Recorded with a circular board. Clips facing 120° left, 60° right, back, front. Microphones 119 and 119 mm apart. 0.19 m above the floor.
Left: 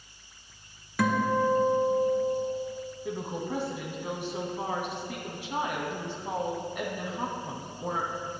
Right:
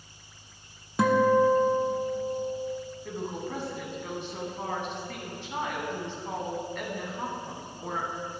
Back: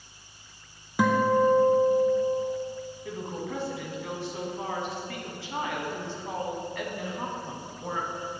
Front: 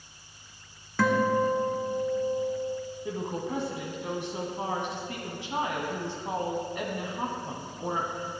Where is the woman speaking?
50° left, 1.1 m.